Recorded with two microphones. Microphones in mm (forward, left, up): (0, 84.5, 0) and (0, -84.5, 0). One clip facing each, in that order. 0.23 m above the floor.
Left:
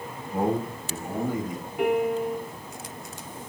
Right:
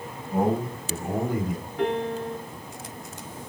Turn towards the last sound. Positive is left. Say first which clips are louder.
# left 3 dB
turn(degrees=10)  # may be behind; listen again after turning